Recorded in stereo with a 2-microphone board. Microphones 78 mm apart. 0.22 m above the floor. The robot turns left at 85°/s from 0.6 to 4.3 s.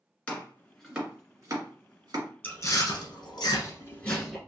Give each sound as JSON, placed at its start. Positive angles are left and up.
{"t": 0.3, "sound": "chopping", "side_deg": 15, "distance_m": 1.8}
{"t": 2.4, "sound": "chewing", "side_deg": 20, "distance_m": 1.5}